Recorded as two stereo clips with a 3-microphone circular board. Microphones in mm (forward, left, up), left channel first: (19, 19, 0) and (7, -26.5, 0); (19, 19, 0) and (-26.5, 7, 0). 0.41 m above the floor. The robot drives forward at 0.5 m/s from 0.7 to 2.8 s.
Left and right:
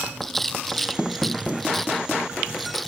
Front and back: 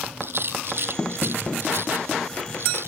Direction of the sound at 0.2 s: 160° left.